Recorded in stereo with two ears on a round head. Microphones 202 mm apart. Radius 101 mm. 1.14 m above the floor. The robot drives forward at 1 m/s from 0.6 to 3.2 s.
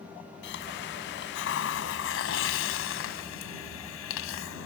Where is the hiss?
55° left (ahead or behind); by 4.7 s 65° left (ahead or behind).